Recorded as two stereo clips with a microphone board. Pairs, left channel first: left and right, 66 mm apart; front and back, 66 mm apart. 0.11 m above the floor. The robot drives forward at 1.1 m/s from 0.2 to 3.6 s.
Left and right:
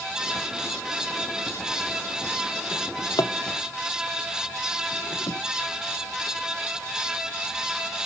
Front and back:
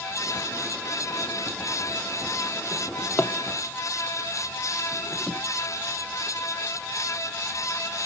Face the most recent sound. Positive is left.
turn(degrees=75)